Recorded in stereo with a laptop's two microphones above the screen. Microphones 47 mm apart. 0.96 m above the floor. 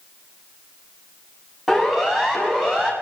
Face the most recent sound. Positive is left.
turn(degrees=-15)  # may be behind; listen again after turning